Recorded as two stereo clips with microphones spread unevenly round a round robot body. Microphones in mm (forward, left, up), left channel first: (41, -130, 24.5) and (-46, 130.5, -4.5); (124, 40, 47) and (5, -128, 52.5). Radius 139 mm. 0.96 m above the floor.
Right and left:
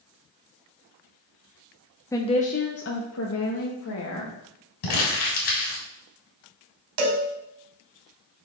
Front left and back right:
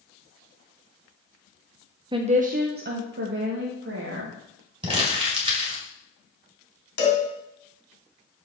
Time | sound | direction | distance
2.1 | a woman speaking | 150° right | 0.7 m
4.8 | crumpling | 60° right | 4 m
7.0 | a cowbell | 105° left | 2.5 m